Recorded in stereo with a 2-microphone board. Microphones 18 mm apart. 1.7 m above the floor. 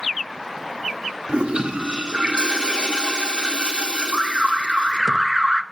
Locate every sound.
1.3 s a toilet flushing: 70° right (ahead or behind), 1.6 m
4.1 s an alarm: 25° right (ahead or behind), 0.8 m